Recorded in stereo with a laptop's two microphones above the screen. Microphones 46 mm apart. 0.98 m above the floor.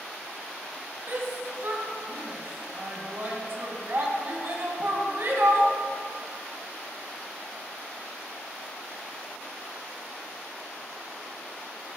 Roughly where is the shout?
Right.